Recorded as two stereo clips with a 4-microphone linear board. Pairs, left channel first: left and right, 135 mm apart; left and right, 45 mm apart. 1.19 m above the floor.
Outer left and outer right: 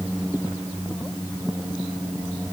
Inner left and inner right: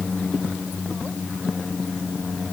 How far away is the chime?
I don't hear a chime.